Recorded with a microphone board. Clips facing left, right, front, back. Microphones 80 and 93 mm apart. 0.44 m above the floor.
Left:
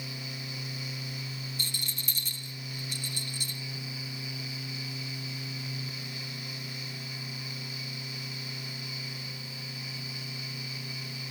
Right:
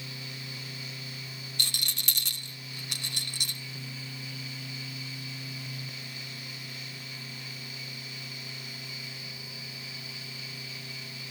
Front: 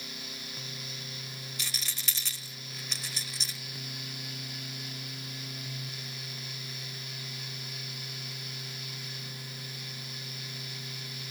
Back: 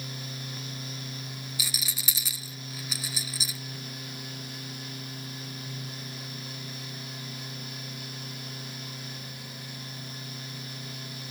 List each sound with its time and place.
1.6 s a rattle: 95° right, 0.6 m